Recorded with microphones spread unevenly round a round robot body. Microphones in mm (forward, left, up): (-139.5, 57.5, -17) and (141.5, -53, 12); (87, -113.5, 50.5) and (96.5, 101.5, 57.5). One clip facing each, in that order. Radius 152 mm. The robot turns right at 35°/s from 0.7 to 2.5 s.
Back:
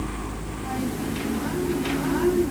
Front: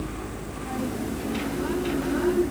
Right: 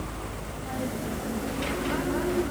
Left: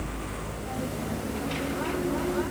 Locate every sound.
Only background noise.